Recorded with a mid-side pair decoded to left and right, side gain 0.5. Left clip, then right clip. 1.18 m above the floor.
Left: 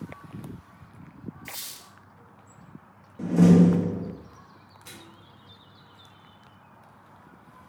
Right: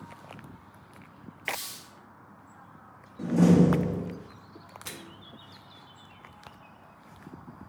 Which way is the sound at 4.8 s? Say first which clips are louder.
Right 3 dB; 50° right.